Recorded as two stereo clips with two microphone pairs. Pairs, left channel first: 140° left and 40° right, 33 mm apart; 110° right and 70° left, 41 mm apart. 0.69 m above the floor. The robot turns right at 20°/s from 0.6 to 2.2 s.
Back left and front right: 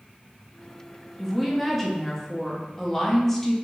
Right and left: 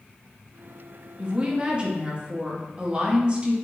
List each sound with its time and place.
1.2 s a woman speaking: 50° left, 0.6 m; by 3.5 s 70° left, 0.6 m